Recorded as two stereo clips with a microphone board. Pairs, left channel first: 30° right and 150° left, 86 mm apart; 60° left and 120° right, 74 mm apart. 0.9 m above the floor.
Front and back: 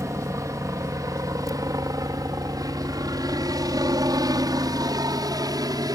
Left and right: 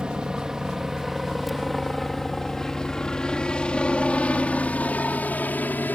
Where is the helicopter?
170° left; by 6.0 s 120° left.